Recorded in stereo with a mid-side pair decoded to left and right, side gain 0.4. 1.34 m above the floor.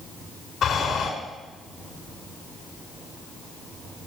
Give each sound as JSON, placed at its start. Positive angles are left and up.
{"t": 0.6, "sound": "breathing", "azimuth_deg": 55, "distance_m": 5.0}